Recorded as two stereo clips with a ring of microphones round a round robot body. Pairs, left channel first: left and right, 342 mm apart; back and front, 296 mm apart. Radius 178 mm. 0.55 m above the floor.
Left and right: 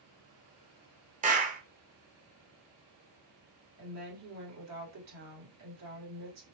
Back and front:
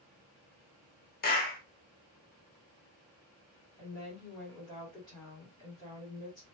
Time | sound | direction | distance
1.2 | a clap | 145° right | 0.8 m
3.8 | a woman speaking | 105° right | 1.8 m